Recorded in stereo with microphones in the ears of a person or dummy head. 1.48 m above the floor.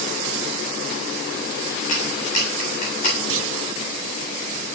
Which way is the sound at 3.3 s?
80° right.